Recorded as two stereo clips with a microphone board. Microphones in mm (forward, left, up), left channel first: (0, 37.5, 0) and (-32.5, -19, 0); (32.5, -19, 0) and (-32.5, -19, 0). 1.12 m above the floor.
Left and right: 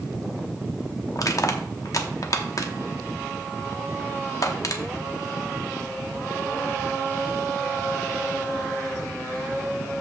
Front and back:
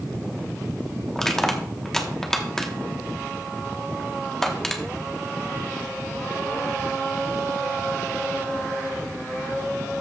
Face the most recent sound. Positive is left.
turn(degrees=85)